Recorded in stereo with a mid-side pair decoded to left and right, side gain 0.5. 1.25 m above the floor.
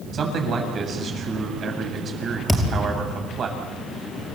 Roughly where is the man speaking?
Ahead right.